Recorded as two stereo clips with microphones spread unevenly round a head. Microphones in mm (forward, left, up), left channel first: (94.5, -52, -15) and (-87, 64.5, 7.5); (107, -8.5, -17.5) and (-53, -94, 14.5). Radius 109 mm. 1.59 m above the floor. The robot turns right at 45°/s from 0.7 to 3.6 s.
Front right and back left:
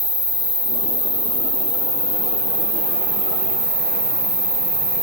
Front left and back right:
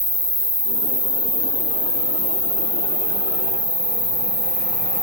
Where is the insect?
40° right, 1.2 m; by 5.0 s 95° left, 1.2 m.